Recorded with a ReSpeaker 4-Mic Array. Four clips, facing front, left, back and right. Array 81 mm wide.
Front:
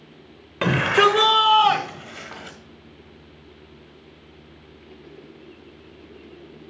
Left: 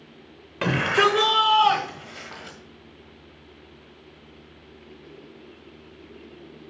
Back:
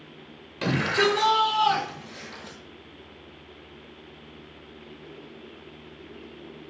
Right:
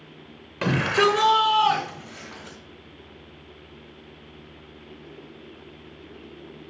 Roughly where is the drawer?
I don't hear a drawer.